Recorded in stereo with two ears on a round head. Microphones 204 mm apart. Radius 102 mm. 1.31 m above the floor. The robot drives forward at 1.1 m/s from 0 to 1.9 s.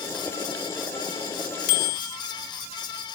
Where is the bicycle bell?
80° left; by 2.2 s 75° left (ahead or behind).